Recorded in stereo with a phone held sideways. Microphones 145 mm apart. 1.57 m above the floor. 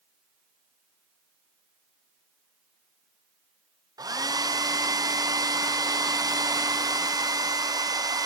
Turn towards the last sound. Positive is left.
turn(degrees=-25)  # may be behind; listen again after turning